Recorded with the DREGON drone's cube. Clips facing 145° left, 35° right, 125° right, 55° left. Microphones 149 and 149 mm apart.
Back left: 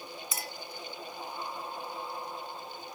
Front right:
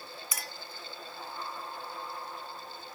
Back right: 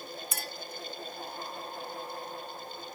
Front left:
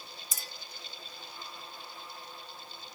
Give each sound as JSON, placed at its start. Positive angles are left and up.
{"t": 0.3, "sound": "a clink", "azimuth_deg": -150, "distance_m": 0.8}